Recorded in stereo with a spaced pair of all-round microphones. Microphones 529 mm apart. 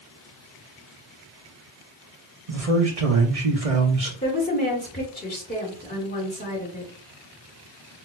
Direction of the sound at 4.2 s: 15° left (ahead or behind).